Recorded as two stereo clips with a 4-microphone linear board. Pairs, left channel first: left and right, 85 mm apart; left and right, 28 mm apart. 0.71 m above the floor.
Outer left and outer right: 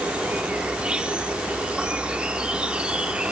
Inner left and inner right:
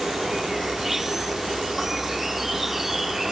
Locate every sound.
0.0 s an insect: 10° right (ahead or behind), 0.7 m